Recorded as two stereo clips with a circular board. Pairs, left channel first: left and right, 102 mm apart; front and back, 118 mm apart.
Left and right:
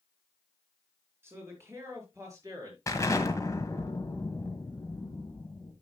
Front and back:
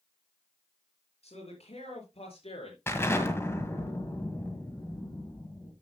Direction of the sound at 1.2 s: 25° right.